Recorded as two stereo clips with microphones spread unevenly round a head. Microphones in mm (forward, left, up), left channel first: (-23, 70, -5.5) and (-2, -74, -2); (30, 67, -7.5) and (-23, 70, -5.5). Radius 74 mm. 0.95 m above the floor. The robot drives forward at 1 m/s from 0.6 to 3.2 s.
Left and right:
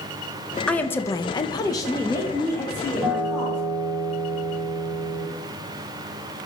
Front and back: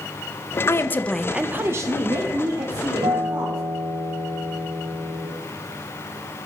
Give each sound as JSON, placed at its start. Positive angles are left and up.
{"t": 0.7, "sound": "a woman speaking", "azimuth_deg": 20, "distance_m": 0.8}
{"t": 3.0, "sound": "a guitar", "azimuth_deg": -170, "distance_m": 2.0}